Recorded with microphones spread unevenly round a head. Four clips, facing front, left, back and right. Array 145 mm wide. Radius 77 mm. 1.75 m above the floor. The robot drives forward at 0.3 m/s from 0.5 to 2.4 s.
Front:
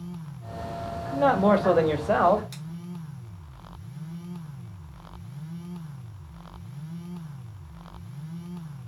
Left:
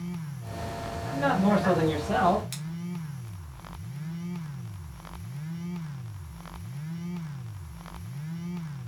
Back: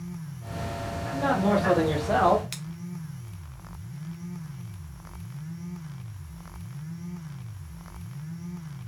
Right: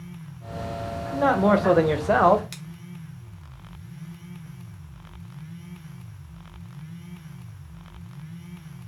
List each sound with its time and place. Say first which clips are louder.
1.1 s a man speaking: right 5 dB, front 4 dB; 40° right, 0.7 m; by 2.4 s 85° right, 0.5 m
2.5 s scissors: left 2 dB, back 1 dB; 175° right, 0.8 m